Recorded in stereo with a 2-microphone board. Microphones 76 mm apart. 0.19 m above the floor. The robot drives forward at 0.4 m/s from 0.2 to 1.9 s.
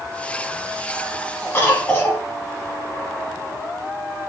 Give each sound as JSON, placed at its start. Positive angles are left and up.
{"t": 1.5, "sound": "a cough", "side_deg": 30, "distance_m": 1.1}